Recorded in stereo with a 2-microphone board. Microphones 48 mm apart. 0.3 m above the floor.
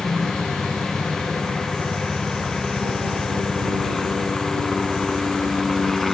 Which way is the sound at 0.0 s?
Centre (ahead or behind).